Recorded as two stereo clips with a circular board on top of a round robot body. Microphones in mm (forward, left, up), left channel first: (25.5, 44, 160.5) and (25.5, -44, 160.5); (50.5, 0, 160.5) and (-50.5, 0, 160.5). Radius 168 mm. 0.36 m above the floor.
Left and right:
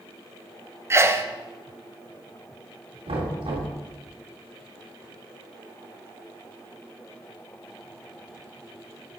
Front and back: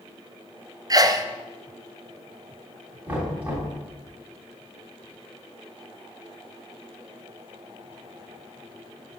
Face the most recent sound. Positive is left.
turn(degrees=-105)